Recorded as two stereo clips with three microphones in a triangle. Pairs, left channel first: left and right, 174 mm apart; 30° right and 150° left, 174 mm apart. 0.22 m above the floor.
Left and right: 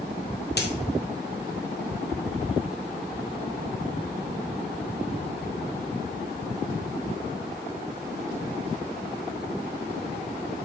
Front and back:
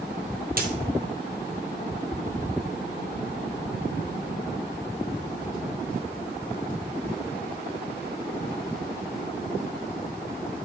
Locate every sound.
0.6 s a dropped coin: 115° left, 1.4 m